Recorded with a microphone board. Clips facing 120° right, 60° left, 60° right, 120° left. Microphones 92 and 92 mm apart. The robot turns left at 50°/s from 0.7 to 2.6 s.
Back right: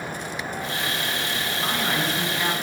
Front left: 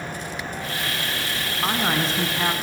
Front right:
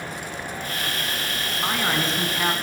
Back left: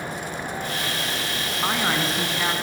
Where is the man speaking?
55° left, 1.5 m; by 2.5 s 10° left, 1.5 m.